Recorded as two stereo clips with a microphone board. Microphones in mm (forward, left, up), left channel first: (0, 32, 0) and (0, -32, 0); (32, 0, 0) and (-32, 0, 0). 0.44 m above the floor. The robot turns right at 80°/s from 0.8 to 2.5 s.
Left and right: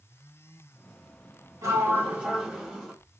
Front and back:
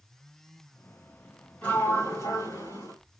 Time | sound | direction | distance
1.6 | a sliding door | 60° right | 3 m